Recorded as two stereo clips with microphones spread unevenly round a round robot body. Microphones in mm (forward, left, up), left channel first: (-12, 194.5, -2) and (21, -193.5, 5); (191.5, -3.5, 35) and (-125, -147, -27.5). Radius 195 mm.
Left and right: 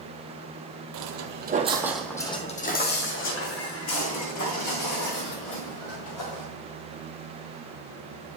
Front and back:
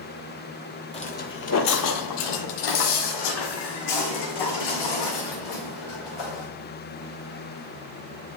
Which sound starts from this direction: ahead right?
Footsteps, at 0.9 s.